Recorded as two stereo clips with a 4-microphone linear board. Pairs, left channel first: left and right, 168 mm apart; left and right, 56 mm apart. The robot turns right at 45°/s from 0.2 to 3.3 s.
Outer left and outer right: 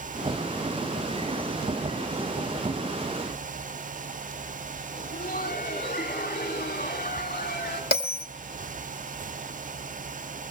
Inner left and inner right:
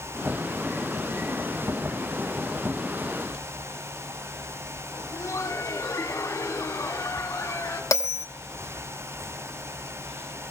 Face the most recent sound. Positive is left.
turn(degrees=75)  # may be behind; listen again after turning